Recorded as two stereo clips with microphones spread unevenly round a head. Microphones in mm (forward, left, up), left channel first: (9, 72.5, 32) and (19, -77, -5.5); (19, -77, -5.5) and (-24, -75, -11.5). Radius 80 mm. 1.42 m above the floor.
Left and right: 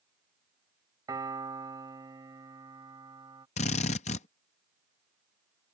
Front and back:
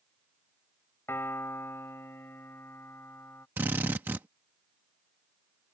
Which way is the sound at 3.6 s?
125° left.